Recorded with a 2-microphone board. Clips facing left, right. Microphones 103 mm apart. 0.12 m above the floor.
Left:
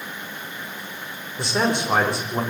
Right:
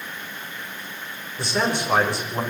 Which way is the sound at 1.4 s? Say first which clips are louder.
Left 2 dB; 20° left (ahead or behind).